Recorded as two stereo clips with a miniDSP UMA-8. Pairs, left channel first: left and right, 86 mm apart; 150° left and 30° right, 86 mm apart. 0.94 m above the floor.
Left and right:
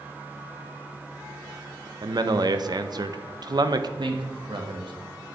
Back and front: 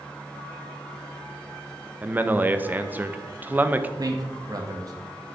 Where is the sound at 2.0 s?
95° right, 0.5 m.